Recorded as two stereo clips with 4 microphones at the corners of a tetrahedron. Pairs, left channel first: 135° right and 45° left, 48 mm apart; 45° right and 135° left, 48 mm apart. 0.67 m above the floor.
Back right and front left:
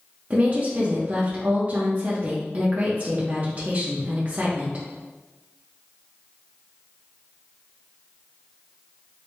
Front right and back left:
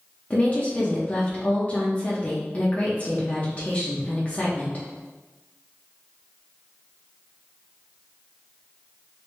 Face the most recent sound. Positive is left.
turn(degrees=0)